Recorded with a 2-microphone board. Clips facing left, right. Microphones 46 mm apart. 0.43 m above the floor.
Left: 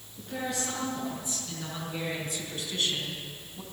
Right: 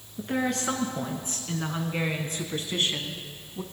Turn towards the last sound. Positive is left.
turn(degrees=-25)  # may be behind; listen again after turning